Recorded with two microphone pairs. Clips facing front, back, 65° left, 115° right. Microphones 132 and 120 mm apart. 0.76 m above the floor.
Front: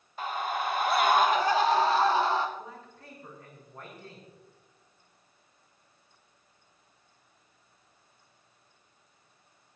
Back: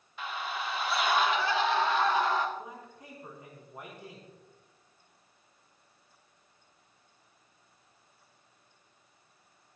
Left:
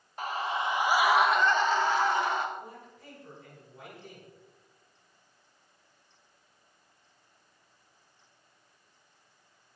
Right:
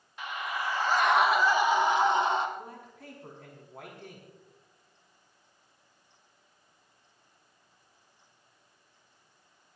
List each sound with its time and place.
0.2 s a scream: 30° left, 1.1 m; by 2.5 s 55° right, 1.9 m
2.6 s a man speaking: 105° right, 5.5 m